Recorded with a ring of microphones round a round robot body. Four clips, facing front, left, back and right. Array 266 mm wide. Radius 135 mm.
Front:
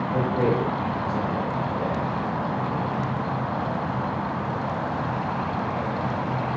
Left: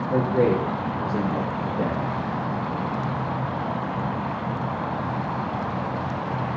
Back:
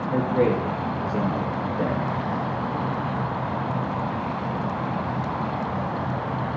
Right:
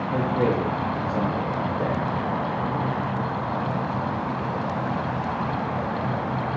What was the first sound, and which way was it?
A man speaking, 105° left.